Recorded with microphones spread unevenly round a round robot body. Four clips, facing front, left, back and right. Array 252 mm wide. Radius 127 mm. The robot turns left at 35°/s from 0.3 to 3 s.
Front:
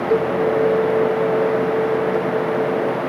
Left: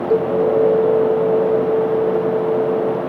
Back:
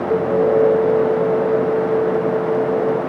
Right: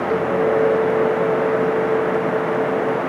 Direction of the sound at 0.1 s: 120° left.